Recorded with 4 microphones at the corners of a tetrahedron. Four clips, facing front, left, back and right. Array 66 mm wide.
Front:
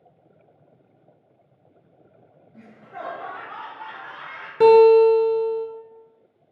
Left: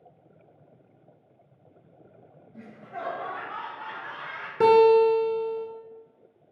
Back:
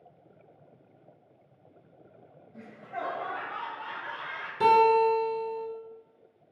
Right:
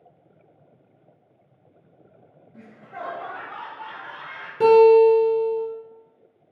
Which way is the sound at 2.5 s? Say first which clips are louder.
Even, back 1 dB; 95° right.